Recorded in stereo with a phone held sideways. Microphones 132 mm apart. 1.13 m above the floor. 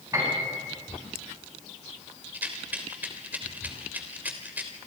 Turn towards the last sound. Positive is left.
turn(degrees=-15)  # may be behind; listen again after turning